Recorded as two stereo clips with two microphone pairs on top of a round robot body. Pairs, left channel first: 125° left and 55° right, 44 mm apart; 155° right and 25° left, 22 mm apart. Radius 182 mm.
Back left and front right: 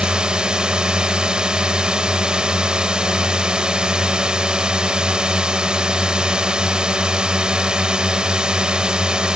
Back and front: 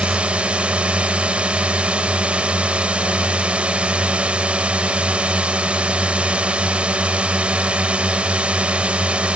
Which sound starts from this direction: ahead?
A drone, at 0.0 s.